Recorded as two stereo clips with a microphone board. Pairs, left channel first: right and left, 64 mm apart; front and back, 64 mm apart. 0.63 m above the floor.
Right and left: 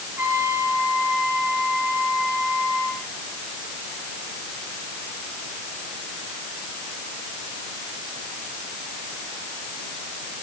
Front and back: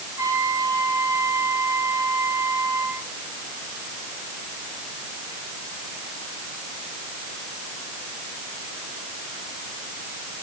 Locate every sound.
0.2 s a trumpet: 145° left, 9 m